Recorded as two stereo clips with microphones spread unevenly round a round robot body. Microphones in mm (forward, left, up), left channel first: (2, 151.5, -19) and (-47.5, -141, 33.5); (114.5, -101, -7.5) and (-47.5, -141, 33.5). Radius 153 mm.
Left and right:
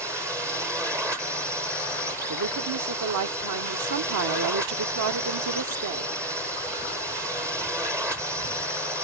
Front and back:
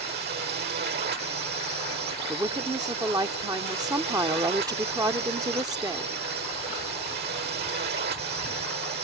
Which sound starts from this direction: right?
A woman speaking, at 2.3 s.